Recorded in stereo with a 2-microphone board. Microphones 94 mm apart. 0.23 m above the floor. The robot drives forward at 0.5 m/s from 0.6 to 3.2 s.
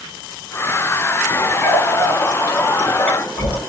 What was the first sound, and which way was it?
A running tap, 30° left (ahead or behind).